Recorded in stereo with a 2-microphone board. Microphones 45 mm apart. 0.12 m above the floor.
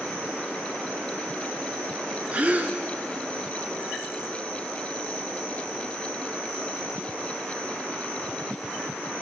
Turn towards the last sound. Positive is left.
turn(degrees=-30)  # may be behind; listen again after turning